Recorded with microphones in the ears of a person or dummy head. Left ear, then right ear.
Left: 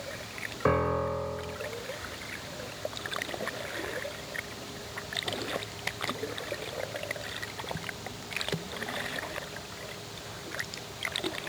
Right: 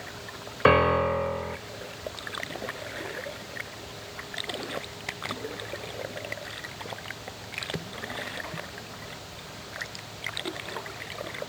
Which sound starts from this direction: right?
A piano, at 0.7 s.